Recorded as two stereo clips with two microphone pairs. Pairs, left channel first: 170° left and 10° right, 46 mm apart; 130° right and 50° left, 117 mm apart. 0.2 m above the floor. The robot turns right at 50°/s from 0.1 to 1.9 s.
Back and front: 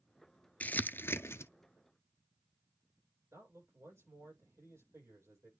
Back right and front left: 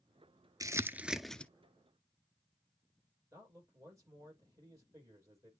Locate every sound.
0.6 s crumpling: 115° left, 0.6 m; by 1.5 s 160° left, 0.6 m
3.3 s a man speaking: 10° right, 7.5 m